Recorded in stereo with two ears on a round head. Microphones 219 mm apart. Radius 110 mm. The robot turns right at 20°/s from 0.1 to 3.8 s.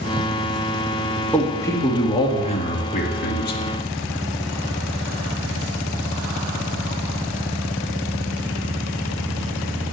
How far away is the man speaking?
About 1.6 m.